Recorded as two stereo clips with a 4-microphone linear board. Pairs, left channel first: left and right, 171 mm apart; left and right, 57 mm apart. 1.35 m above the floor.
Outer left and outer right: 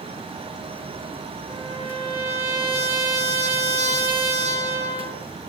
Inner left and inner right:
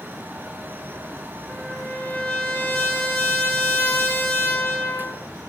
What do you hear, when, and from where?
1.5 s a trumpet: 35° left (ahead or behind), 3 m